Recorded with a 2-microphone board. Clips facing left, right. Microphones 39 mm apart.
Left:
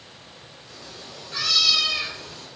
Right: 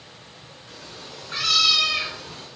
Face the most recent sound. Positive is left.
turn(degrees=-50)  # may be behind; listen again after turning